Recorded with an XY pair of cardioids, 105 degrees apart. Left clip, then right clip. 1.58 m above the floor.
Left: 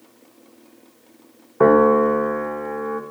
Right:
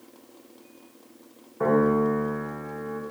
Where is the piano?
70° left, 1.4 m.